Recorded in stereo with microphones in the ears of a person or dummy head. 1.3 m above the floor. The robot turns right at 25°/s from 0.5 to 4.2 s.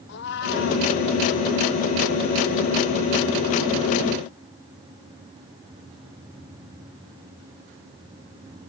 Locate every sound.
0.1 s a cat meowing: 60° left (ahead or behind); by 0.9 s 70° left (ahead or behind)